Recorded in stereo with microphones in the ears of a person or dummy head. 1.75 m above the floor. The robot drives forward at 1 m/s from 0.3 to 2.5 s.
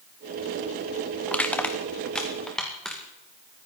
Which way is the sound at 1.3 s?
5° left (ahead or behind).